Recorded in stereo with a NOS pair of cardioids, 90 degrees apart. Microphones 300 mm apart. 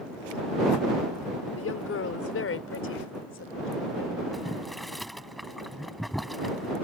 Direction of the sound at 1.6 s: 45° left.